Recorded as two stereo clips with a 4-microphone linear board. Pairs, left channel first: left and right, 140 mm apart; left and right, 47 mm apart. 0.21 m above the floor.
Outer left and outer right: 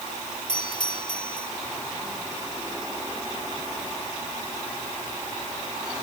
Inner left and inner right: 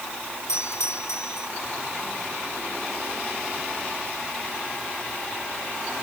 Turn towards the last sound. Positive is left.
turn(degrees=75)  # may be behind; listen again after turning